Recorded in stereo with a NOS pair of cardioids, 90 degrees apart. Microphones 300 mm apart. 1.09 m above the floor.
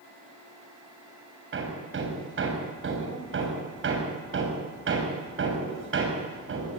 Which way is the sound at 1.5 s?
45° right.